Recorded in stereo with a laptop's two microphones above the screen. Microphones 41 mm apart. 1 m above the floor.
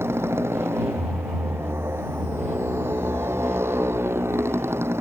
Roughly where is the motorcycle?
Right.